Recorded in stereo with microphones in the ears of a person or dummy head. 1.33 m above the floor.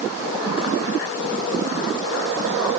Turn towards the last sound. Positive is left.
No sound to turn to.